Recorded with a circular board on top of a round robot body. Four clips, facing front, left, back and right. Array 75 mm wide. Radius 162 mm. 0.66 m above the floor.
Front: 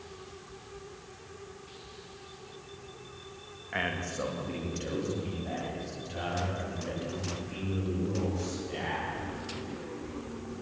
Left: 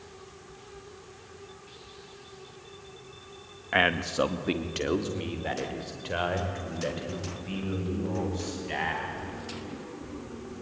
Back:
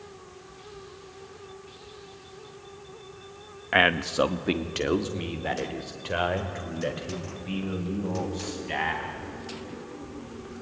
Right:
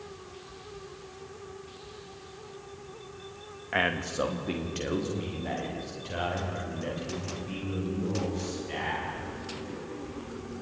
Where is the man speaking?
165° left, 1.1 m; by 9.1 s 155° left, 6.5 m.